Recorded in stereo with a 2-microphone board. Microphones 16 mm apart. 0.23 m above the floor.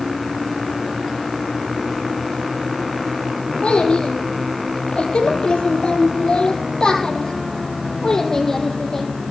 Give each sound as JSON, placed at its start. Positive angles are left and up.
{"t": 3.6, "sound": "a child speaking", "side_deg": 75, "distance_m": 4.0}